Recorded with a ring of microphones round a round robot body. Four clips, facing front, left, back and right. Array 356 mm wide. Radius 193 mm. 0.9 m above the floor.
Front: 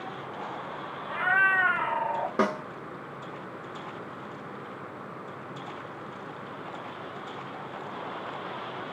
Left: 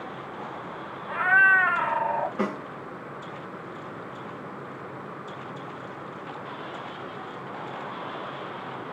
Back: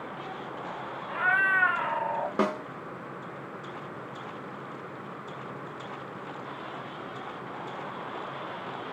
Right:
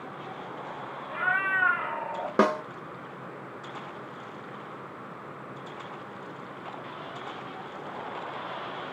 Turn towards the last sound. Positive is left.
turn(degrees=-85)